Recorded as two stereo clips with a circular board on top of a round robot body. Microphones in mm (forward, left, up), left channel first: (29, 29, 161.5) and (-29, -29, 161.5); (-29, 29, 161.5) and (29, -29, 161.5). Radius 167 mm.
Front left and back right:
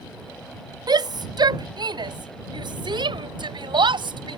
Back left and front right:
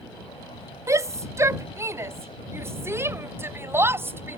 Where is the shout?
100° right; by 4.4 s 110° right.